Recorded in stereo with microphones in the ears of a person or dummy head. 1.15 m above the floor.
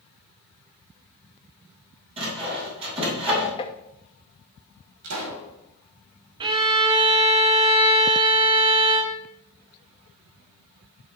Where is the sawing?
30° right (ahead or behind), 4 m.